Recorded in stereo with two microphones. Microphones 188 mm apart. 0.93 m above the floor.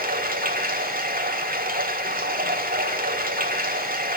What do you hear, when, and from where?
0.0 s running water: 50° right (ahead or behind), 1.7 m